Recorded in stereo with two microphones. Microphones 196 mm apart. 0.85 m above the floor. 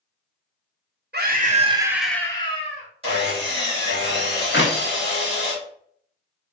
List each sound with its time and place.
1.1 s a scream: 55° right (ahead or behind), 0.8 m; by 2.9 s 40° left (ahead or behind), 1.0 m
3.0 s sawing: 30° right (ahead or behind), 1.3 m
4.5 s a clap: 70° left (ahead or behind), 0.6 m